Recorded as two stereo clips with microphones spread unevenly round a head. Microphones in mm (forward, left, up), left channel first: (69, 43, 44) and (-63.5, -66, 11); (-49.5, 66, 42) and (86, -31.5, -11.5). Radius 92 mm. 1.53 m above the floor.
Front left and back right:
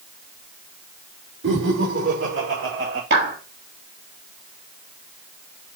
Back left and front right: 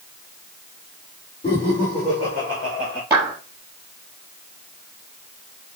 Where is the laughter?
145° right, 6 m; by 3.0 s 140° right, 7 m.